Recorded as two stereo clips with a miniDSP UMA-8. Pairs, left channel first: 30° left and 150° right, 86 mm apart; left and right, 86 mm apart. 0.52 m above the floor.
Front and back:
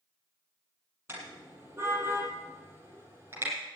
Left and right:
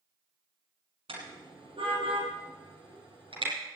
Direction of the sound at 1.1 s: 90° right.